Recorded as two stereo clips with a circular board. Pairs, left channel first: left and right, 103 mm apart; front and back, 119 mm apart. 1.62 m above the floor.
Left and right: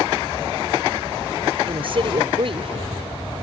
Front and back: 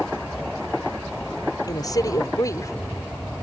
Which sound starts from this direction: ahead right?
A woman speaking, at 1.7 s.